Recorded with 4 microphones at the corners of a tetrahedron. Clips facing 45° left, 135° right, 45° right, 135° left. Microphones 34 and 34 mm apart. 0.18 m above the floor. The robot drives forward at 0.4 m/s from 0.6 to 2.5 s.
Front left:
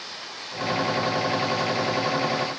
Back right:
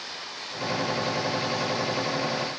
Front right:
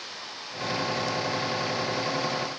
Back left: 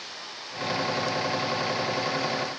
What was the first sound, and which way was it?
Only background noise.